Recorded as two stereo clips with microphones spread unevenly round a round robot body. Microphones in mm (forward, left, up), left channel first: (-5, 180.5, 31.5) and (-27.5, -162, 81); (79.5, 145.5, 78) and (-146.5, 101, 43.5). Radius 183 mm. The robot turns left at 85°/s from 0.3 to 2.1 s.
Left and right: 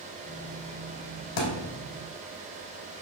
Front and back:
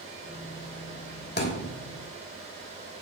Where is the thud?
55° left, 3 m; by 1.7 s 20° left, 3 m.